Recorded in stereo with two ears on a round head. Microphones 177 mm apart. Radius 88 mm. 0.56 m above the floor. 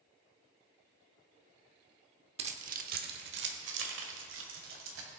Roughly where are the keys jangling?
Right.